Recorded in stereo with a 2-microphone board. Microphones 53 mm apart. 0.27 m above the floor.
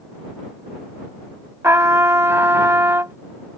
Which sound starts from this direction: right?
A trumpet, at 1.6 s.